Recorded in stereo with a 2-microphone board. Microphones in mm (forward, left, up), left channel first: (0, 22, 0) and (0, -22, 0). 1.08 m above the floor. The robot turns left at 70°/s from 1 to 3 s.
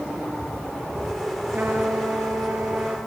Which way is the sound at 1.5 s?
45° right.